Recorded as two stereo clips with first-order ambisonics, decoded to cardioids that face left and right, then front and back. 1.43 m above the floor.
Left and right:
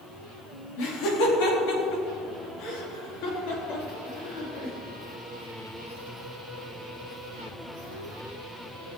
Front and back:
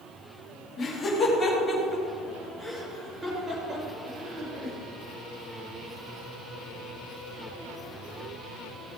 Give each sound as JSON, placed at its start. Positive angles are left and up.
{"t": 0.8, "sound": "laughter", "azimuth_deg": 70, "distance_m": 3.5}